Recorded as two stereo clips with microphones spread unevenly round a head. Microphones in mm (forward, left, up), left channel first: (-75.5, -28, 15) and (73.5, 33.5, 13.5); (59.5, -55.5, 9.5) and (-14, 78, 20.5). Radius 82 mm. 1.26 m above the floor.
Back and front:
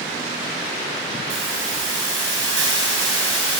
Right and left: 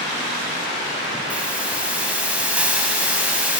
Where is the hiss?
35° left, 5.5 m.